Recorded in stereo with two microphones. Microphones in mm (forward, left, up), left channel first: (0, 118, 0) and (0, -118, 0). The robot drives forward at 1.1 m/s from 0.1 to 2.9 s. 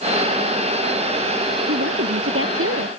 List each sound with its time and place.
1.7 s a woman speaking: 65° right (ahead or behind); by 2.9 s 60° right (ahead or behind)